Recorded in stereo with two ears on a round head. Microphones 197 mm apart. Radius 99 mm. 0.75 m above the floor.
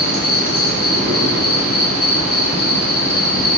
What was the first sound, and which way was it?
An insect, 10° left (ahead or behind).